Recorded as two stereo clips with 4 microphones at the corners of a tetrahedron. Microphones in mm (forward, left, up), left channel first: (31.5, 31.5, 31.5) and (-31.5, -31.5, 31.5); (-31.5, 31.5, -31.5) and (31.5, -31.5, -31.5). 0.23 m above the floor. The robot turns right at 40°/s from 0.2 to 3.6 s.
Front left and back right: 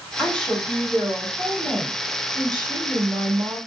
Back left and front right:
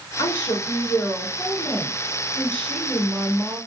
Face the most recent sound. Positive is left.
turn(degrees=-110)